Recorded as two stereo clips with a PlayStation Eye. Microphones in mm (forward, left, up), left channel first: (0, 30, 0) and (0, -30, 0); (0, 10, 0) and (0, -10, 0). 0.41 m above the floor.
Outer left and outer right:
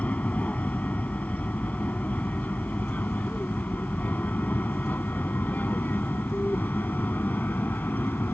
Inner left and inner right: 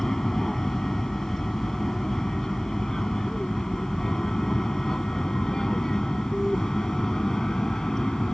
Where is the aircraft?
25° left (ahead or behind); by 8.3 s 30° left (ahead or behind).